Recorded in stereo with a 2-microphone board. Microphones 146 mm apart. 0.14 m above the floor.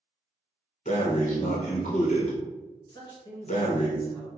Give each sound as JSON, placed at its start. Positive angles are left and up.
{"t": 0.8, "sound": "breathing", "side_deg": 55, "distance_m": 0.8}
{"t": 2.9, "sound": "a man speaking", "side_deg": 25, "distance_m": 1.3}